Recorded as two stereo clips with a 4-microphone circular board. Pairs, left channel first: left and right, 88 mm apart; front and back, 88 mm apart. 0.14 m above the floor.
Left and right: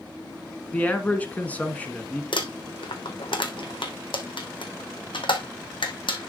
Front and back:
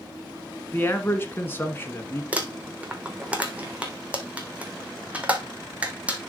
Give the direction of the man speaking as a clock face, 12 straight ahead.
11 o'clock.